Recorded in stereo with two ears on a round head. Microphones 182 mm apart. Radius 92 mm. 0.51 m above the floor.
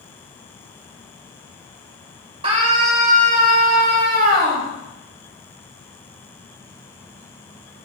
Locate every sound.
2.4 s a scream: 30° right (ahead or behind), 2.5 m; by 4.7 s 50° right (ahead or behind), 3.5 m